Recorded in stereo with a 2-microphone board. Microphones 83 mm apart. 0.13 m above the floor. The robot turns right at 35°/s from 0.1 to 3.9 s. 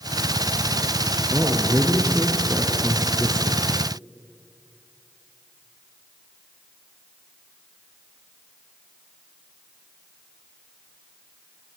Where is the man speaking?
65° right, 2.5 m; by 3.6 s 20° left, 2.5 m.